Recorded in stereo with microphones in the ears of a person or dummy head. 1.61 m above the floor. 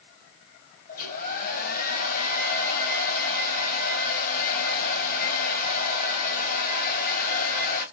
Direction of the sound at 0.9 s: 55° left (ahead or behind).